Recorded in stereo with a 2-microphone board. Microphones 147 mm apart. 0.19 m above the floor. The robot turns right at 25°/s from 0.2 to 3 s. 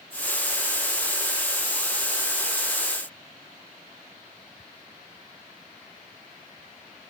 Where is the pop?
I don't hear a pop.